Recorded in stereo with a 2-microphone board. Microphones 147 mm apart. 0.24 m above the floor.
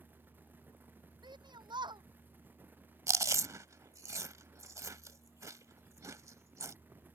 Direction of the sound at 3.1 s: 20° right (ahead or behind).